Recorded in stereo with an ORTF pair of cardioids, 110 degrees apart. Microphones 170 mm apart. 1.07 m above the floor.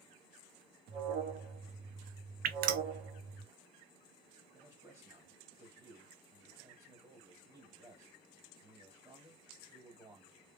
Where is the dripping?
65° right, 0.8 m.